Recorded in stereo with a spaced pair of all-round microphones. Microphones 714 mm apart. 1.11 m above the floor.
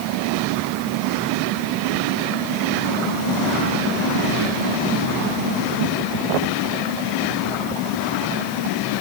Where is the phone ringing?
I don't hear a phone ringing.